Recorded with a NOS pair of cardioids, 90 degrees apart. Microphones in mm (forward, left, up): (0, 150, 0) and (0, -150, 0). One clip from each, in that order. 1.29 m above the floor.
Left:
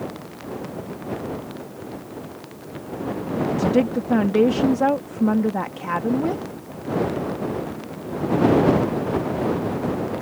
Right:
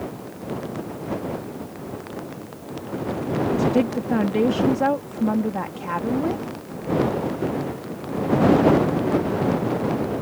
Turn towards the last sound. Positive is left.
turn(degrees=20)